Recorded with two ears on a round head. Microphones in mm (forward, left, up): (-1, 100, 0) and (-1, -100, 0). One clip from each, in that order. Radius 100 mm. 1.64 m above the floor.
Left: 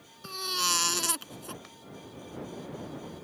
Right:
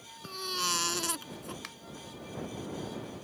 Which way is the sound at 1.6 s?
60° right (ahead or behind).